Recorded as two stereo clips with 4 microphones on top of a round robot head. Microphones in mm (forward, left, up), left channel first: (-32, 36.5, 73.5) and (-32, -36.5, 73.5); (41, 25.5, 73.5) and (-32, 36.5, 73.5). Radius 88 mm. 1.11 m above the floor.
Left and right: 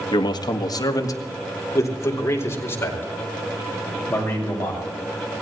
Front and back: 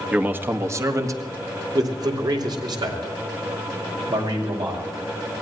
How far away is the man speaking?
About 1.6 m.